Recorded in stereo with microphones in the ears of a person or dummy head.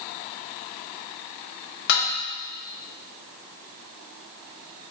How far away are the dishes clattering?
About 1.7 m.